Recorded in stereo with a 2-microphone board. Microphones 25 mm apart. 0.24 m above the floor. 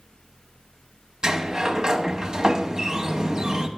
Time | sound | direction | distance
1.2 | a sliding door | 30° right (ahead or behind) | 0.8 m